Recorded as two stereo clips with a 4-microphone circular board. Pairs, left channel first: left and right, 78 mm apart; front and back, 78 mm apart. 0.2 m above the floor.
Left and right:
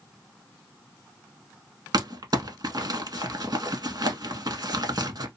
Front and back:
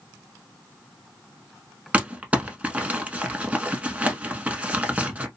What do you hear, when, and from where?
1.9 s crumpling: 110° right, 0.8 m